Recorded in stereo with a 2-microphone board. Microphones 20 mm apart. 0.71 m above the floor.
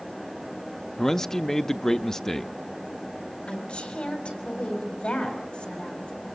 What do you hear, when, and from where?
1.0 s a man speaking: 20° left (ahead or behind), 0.6 m
3.5 s a woman speaking: 80° left, 5 m